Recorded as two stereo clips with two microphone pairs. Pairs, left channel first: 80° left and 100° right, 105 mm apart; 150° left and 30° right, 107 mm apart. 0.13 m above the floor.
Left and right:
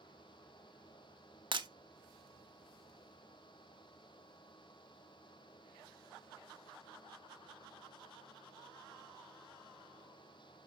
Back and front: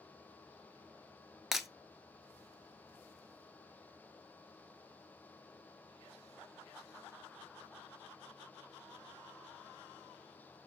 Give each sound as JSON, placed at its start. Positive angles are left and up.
{"t": 1.5, "sound": "breaking glass", "azimuth_deg": -120, "distance_m": 0.7}